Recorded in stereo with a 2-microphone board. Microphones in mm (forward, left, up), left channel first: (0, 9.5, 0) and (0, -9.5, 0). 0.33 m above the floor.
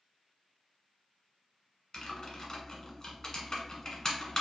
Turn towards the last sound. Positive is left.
turn(degrees=35)  # may be behind; listen again after turning